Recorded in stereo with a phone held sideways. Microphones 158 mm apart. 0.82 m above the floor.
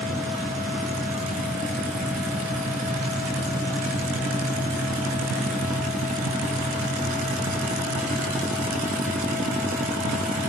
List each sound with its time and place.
0.0 s a fan: 5° left (ahead or behind), 8.5 m